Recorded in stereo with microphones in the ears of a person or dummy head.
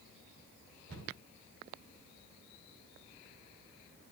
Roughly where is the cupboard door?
Right.